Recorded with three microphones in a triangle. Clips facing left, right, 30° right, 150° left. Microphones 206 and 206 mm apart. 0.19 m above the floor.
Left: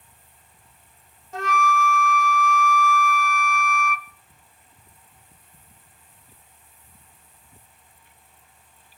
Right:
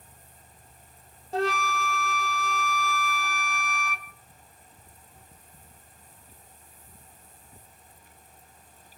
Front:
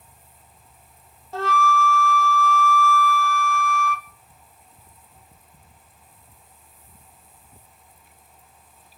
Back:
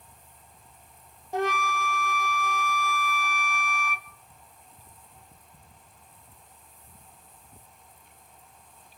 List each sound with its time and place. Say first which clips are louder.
1.3 s a flute: left 2 dB, front 4 dB; 140° right, 0.6 m